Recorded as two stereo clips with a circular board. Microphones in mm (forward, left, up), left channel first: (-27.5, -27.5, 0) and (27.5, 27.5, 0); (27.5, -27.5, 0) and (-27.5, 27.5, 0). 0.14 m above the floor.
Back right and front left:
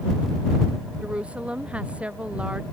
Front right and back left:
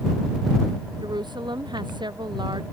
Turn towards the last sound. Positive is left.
turn(degrees=120)